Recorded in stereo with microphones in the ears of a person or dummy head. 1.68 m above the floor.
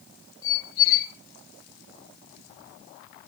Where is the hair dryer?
No hair dryer in this recording.